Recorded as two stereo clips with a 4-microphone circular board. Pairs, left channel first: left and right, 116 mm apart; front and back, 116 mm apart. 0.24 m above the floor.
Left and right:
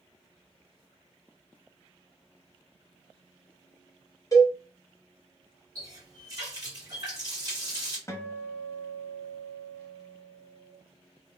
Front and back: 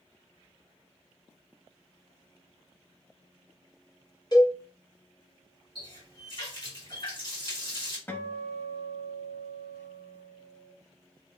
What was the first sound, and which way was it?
A cowbell, 40° left.